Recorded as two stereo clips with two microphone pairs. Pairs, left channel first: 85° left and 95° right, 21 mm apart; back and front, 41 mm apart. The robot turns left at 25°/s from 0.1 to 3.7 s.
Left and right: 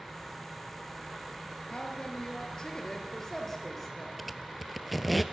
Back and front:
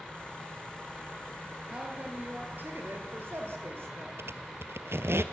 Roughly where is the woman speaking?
Ahead left.